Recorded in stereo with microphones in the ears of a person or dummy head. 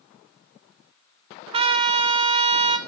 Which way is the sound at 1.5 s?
40° right (ahead or behind).